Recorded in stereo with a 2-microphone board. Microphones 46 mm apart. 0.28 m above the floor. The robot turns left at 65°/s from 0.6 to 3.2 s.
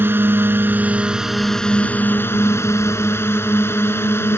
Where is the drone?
130° right; by 4.4 s 65° left.